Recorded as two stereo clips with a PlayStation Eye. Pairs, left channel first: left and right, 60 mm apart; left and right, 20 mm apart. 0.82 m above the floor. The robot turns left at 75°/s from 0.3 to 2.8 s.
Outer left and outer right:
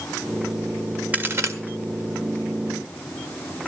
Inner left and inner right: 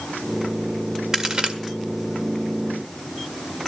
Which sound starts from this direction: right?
A crack, at 1.1 s.